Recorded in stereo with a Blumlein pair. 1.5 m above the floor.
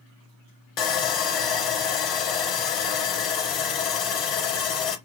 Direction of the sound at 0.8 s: 35° left.